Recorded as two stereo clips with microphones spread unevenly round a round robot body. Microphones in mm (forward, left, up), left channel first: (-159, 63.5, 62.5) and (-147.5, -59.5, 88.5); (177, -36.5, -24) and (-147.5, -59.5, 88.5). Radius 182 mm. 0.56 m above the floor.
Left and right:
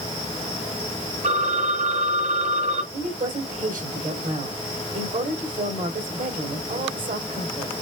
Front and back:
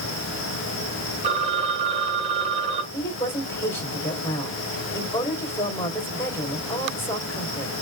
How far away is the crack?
I don't hear a crack.